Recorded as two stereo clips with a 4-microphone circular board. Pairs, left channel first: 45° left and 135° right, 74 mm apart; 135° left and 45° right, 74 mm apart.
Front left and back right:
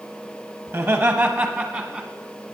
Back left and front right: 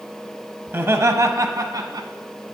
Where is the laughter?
90° right, 0.8 m; by 2.1 s 45° right, 1.3 m.